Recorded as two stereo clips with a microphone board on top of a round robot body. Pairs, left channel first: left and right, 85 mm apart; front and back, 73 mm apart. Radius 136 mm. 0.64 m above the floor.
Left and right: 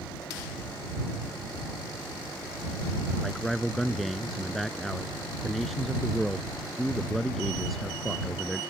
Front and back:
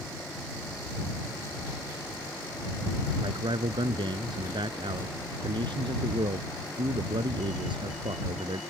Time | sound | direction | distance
3.2 | a man speaking | straight behind | ?